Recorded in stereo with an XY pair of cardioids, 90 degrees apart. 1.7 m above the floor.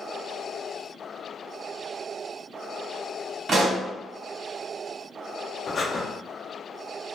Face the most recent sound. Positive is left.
turn(degrees=40)